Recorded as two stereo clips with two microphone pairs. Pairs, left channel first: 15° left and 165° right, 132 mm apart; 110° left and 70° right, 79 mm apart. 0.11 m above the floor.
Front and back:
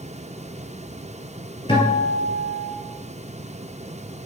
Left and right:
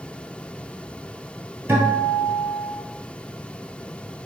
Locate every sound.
1.7 s a guitar: 15° right, 2 m